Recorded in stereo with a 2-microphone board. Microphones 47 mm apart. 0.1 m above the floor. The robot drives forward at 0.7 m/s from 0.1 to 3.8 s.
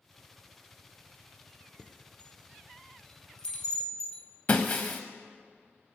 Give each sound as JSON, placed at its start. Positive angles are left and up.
{"t": 1.8, "sound": "a chime", "side_deg": 30, "distance_m": 0.8}
{"t": 4.5, "sound": "breaking glass", "side_deg": 40, "distance_m": 1.2}